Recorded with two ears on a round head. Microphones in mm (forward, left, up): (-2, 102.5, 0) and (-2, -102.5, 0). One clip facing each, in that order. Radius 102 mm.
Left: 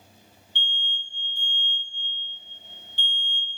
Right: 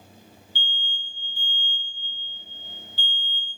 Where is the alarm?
35° right (ahead or behind), 3 m.